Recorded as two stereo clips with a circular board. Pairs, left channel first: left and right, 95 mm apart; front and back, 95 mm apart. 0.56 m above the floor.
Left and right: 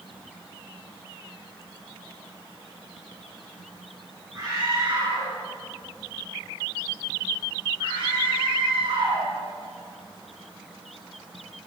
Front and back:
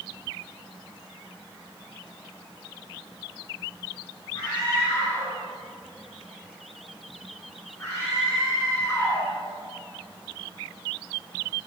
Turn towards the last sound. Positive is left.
turn(degrees=-70)